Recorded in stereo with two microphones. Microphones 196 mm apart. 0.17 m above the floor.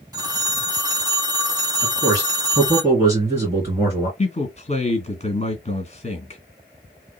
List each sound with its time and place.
0.1 s a phone ringing: 20° right (ahead or behind), 0.6 m
1.8 s a man speaking: 15° right (ahead or behind), 2.5 m
4.2 s a man speaking: 35° left (ahead or behind), 1.9 m